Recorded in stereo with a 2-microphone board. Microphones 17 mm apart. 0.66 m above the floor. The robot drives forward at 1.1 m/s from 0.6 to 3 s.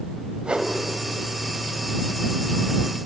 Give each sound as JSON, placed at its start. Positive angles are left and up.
{"t": 0.4, "sound": "a whoosh", "side_deg": -70, "distance_m": 0.8}